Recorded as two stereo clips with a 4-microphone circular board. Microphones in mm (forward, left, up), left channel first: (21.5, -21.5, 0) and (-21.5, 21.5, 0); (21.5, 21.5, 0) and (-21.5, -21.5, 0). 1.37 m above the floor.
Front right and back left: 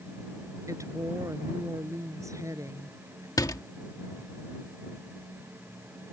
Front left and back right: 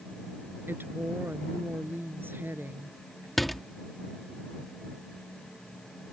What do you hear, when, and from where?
0.7 s a woman speaking: 170° left
3.4 s a door slam: 45° right